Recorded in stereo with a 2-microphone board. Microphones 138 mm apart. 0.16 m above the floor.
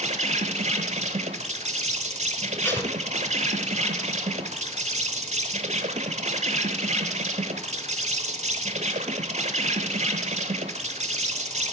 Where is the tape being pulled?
15° left (ahead or behind), 0.9 m.